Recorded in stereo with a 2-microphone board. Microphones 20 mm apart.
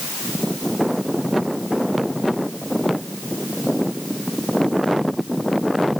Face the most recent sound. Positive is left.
No sound to turn to.